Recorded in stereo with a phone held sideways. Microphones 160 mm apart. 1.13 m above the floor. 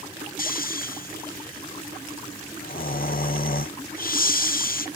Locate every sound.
0.4 s snoring: 65° left (ahead or behind)